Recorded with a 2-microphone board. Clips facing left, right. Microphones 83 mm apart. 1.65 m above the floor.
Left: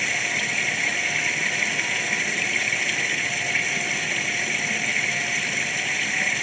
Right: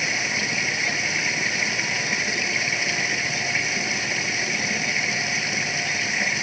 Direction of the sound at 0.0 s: 10° right (ahead or behind).